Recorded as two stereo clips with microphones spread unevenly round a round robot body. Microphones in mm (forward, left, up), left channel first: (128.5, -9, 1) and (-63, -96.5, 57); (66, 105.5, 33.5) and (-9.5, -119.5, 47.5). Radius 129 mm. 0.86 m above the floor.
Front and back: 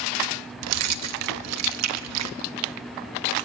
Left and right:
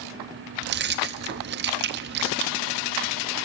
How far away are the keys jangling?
About 0.6 m.